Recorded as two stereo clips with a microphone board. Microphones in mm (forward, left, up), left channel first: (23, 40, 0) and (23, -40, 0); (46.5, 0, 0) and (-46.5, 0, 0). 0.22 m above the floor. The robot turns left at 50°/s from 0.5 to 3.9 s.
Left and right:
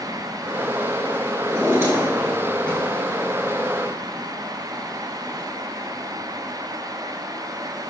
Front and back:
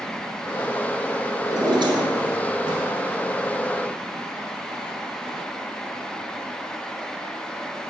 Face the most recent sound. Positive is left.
turn(degrees=105)